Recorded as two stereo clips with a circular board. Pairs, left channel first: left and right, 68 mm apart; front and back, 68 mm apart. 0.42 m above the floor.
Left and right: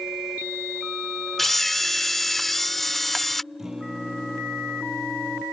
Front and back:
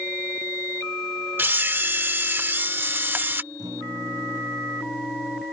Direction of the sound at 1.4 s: 175° left.